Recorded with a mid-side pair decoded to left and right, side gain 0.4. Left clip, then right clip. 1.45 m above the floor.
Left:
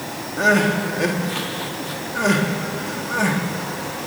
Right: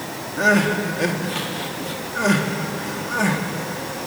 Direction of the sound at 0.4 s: 5° right.